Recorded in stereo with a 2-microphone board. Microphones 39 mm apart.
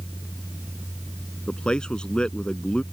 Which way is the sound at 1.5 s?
25° left (ahead or behind).